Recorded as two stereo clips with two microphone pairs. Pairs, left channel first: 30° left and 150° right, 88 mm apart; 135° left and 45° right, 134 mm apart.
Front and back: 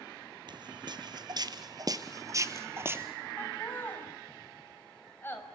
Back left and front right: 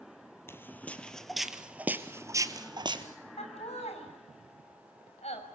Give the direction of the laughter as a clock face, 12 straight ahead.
9 o'clock.